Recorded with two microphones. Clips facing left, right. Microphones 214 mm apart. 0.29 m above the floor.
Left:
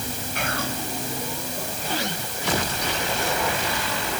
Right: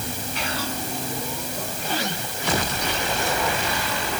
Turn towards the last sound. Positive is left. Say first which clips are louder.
# left 2 dB
turn(degrees=55)  # may be behind; listen again after turning